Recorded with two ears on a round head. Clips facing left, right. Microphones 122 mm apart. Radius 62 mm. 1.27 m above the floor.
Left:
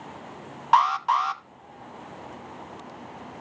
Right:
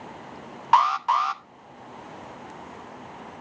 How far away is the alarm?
About 0.9 m.